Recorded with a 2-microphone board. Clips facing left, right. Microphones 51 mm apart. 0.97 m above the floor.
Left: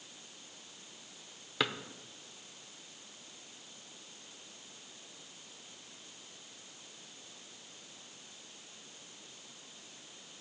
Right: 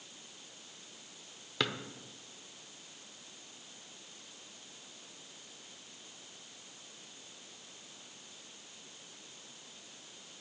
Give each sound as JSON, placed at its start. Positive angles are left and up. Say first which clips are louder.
{"t": 1.6, "sound": "a drawer", "louder": "left 1 dB", "side_deg": 5, "distance_m": 0.6}